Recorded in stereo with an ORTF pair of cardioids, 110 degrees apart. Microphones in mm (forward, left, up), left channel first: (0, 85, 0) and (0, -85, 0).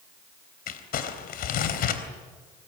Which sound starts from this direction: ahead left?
Crumpling, at 0.7 s.